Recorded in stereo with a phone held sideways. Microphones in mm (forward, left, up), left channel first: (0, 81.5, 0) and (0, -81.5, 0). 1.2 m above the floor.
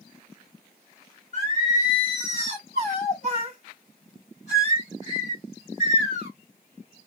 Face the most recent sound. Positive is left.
turn(degrees=45)  # may be behind; listen again after turning